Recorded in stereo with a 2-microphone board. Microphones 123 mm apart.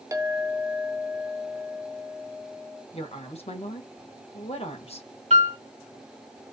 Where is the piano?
65° right (ahead or behind), 1.8 m.